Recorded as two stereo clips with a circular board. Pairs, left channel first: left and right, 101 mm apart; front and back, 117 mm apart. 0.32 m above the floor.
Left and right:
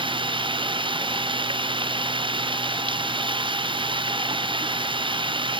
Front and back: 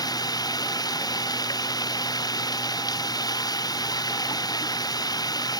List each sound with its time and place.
0.0 s running water: 55° right